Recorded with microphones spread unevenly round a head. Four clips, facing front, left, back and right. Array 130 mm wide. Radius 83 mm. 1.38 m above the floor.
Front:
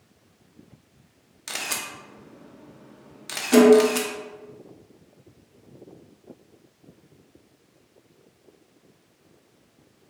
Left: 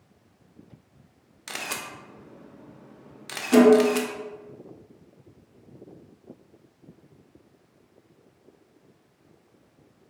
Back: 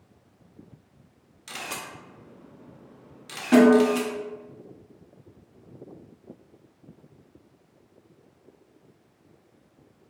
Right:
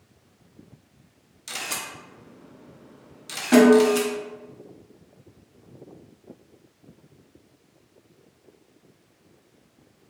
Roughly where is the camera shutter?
Ahead left.